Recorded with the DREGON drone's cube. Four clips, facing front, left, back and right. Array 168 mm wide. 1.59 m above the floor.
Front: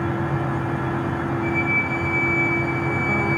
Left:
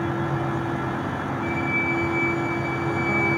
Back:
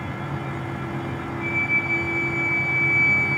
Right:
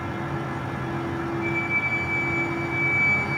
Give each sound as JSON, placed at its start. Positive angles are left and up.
{"t": 1.4, "sound": "a flute", "azimuth_deg": 145, "distance_m": 1.3}